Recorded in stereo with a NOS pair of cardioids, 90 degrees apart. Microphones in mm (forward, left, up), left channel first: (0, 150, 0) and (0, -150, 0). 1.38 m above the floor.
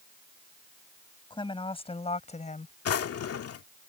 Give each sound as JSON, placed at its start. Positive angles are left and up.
{"t": 1.3, "sound": "a woman speaking", "azimuth_deg": 15}
{"t": 2.9, "sound": "a drawer", "azimuth_deg": 55}